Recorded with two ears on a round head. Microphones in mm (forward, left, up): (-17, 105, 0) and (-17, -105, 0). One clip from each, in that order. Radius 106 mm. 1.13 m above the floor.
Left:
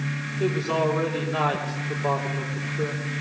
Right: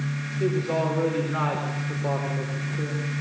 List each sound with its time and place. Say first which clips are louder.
0.4 s a man speaking: left 1 dB; 20° left (ahead or behind), 4.5 m